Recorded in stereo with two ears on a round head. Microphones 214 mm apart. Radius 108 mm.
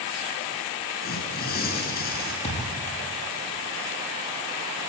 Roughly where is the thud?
Left.